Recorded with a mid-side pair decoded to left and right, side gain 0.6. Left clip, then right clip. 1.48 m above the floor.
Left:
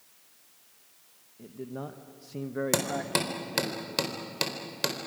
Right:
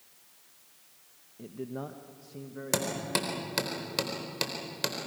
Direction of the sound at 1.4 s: 20° right.